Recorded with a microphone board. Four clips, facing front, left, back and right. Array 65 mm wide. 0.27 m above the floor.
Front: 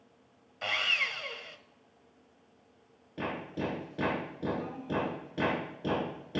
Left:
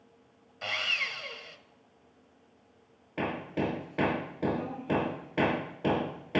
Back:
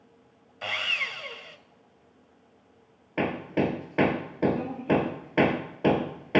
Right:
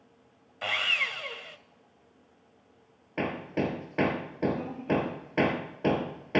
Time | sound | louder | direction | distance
0.6 | sawing | right 3 dB, back 1 dB | 100° right | 1.1 m
3.2 | hammering | right 1 dB, back 9 dB | 170° right | 2.5 m